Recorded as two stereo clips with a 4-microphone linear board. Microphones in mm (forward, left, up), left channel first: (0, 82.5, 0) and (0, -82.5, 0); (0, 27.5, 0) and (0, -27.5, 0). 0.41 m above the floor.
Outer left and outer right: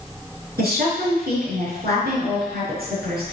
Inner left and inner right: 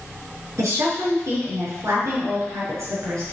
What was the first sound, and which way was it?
A woman speaking, 80° right.